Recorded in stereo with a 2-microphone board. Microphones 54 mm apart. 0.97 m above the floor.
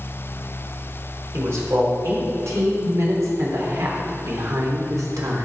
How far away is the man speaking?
About 4 m.